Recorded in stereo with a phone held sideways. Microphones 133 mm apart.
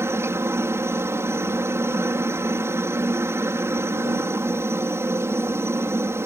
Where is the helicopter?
20° right (ahead or behind).